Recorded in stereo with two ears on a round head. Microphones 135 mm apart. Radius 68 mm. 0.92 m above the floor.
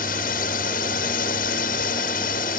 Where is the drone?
60° left (ahead or behind).